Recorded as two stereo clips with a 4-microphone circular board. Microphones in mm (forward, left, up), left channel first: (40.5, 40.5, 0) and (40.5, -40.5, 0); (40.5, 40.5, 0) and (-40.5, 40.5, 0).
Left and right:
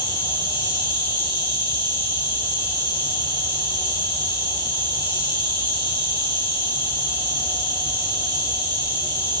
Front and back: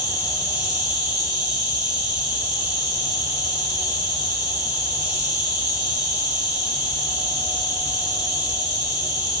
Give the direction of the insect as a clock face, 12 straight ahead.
4 o'clock.